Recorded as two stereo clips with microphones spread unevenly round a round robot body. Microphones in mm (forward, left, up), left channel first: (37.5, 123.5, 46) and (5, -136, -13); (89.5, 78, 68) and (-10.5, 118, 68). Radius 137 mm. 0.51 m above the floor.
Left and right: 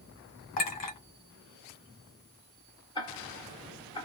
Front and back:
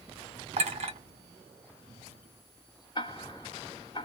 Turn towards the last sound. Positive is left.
turn(degrees=0)